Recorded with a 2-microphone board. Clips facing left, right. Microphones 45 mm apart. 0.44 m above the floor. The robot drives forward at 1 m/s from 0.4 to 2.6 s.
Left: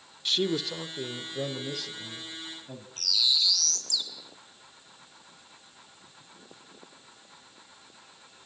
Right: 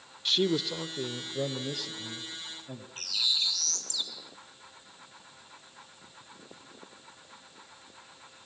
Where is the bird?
35° right (ahead or behind), 3 m.